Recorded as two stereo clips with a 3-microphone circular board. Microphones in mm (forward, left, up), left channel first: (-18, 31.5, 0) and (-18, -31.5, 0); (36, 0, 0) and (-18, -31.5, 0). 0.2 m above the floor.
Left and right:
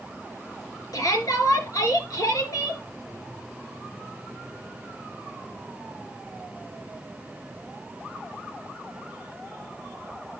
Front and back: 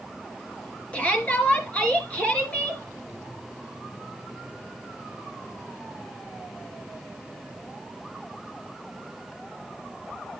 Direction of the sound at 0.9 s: 95° left.